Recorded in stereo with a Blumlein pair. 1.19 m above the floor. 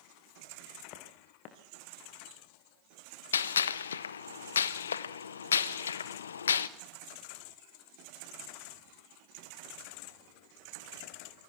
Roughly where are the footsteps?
Ahead left.